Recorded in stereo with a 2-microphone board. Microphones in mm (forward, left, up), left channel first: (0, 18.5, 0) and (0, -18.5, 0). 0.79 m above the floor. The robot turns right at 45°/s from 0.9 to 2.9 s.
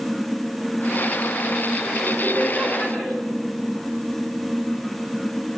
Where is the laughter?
15° right, 2.5 m; by 3.1 s 25° left, 2.5 m.